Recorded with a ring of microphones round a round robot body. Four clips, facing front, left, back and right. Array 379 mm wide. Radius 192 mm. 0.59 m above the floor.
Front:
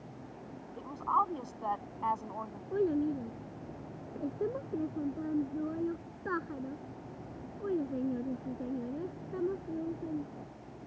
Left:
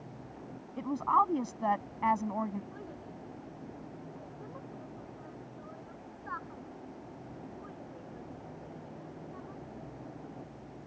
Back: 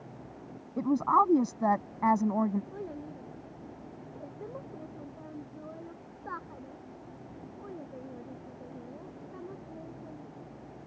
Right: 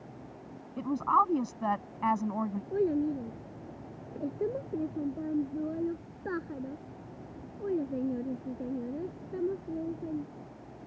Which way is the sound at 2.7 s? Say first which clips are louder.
Right 18 dB, front 11 dB; 55° right.